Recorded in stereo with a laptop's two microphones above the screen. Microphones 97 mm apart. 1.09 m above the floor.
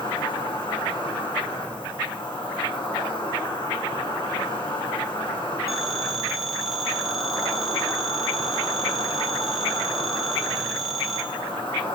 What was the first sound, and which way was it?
An insect, 60° left (ahead or behind).